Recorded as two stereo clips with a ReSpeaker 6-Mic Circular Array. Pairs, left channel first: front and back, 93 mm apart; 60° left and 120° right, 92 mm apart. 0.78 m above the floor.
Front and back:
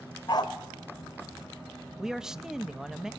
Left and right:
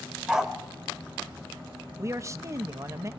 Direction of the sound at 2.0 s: 105° right.